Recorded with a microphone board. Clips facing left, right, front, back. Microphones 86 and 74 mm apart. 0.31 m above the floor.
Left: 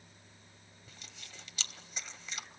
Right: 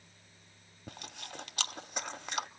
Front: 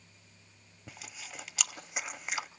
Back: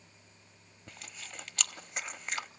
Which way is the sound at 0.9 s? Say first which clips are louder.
Right 10 dB, front 1 dB; 80° right.